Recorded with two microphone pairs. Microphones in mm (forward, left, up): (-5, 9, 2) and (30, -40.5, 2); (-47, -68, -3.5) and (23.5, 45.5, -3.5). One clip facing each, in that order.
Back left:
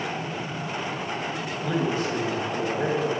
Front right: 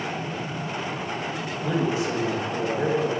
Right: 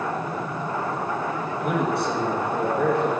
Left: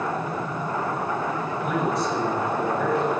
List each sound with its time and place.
1.6 s a man speaking: 135° right, 3.5 m